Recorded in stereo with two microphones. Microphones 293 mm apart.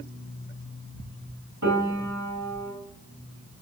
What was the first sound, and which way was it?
A piano, 80° right.